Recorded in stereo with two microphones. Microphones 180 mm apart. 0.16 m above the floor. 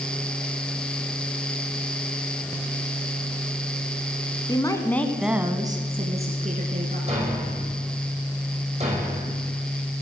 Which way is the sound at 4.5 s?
25° left (ahead or behind).